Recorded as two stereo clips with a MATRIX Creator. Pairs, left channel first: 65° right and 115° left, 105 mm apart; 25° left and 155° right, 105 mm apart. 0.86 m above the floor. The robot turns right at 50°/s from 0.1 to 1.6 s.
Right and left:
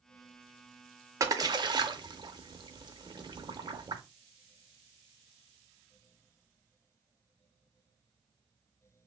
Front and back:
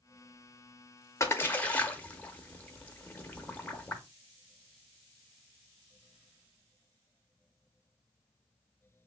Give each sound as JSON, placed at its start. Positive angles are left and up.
{"t": 1.2, "sound": "a splash", "azimuth_deg": 70, "distance_m": 0.6}